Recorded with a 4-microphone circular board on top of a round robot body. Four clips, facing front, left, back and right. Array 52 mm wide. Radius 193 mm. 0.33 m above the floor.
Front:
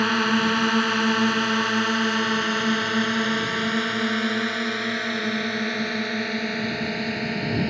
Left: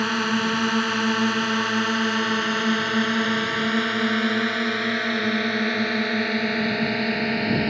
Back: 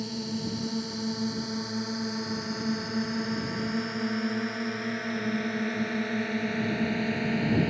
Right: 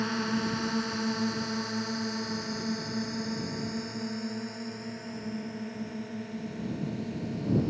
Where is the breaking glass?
I don't hear breaking glass.